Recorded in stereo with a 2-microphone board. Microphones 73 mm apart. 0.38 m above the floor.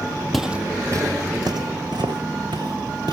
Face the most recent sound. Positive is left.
turn(degrees=-80)